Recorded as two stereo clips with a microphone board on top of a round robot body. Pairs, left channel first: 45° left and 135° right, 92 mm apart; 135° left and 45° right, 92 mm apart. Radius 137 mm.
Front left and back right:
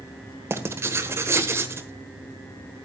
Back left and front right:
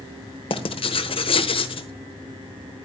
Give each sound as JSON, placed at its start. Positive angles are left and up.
{"t": 0.5, "sound": "writing", "azimuth_deg": 160, "distance_m": 1.2}